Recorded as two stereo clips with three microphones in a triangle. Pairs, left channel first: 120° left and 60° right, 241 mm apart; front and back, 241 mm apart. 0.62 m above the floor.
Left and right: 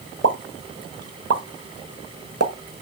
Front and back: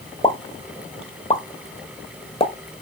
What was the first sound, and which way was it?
A pop, 70° right.